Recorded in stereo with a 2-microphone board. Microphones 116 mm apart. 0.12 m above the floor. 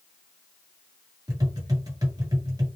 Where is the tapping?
35° right (ahead or behind), 1.8 m.